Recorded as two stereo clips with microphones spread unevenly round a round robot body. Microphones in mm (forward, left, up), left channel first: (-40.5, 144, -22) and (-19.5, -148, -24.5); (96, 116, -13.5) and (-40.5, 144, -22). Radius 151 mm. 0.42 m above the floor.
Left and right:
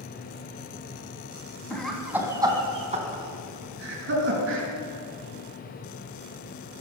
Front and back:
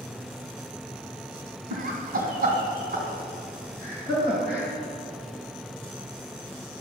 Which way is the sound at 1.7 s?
Straight behind.